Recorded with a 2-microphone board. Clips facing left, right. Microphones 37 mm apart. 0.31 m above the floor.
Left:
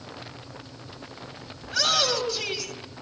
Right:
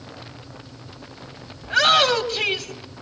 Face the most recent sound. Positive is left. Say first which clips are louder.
# right 8 dB
turn(degrees=-50)  # may be behind; listen again after turning